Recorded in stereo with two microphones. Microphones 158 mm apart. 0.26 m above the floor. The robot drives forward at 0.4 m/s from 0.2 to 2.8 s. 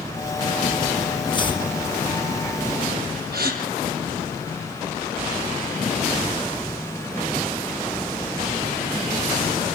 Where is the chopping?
30° left (ahead or behind), 4 m.